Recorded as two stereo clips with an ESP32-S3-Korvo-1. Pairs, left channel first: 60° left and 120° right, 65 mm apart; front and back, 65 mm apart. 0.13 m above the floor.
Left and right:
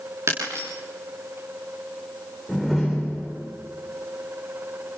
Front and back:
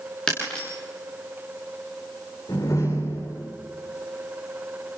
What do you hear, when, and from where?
0.3 s breaking glass: 75° right, 7.5 m
2.5 s a door slam: 35° right, 8.5 m